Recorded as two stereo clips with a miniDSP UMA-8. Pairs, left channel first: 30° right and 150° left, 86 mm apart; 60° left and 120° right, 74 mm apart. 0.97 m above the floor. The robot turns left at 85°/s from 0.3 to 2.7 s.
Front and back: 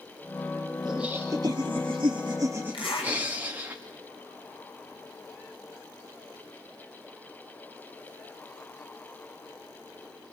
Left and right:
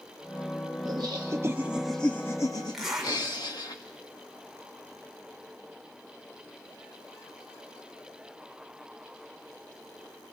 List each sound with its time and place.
0.8 s laughter: 120° right, 1.3 m; by 3.7 s 80° left, 1.3 m
2.7 s a zipper: 30° right, 6 m